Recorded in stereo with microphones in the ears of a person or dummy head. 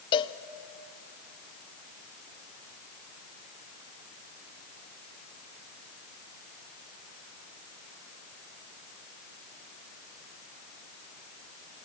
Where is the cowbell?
25° left (ahead or behind), 0.6 m.